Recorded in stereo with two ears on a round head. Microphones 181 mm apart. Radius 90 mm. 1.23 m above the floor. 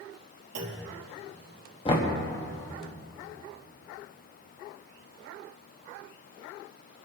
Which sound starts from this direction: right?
A clunk, at 0.6 s.